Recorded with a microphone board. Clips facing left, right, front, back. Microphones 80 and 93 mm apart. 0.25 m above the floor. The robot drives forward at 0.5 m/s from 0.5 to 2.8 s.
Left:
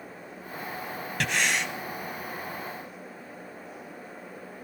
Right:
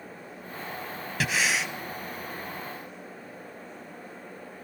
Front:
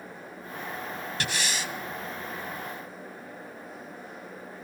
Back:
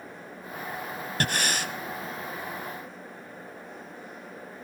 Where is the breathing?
175° right, 0.8 m.